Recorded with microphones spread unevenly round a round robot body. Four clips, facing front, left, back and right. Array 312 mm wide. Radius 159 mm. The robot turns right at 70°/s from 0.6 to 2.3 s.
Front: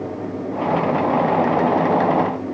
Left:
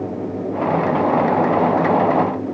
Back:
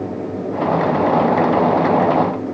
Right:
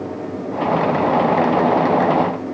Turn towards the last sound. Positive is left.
No sound to turn to.